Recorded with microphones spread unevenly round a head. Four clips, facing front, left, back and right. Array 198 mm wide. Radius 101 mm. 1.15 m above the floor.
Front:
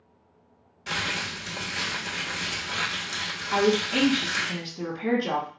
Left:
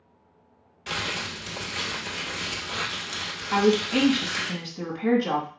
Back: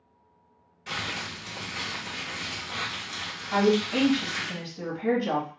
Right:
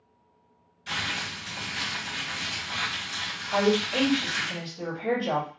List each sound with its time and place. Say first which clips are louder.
0.9 s crumpling: left 2 dB, front 3 dB; 55° left, 1.6 m
3.5 s a woman speaking: left 3 dB, even; 75° left, 1.9 m